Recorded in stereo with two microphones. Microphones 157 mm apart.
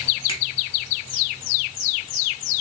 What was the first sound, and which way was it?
A finger snap, 35° left (ahead or behind).